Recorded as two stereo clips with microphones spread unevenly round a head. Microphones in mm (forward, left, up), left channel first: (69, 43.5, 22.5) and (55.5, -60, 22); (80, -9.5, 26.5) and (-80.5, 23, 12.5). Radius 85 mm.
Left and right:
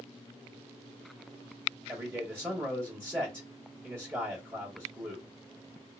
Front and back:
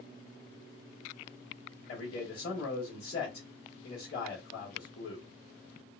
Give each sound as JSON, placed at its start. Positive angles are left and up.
{"t": 1.9, "sound": "a man speaking", "azimuth_deg": -35, "distance_m": 1.4}